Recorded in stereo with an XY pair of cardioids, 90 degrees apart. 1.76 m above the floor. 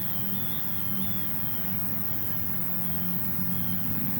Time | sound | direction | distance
0.0 | an insect | 15° right | ?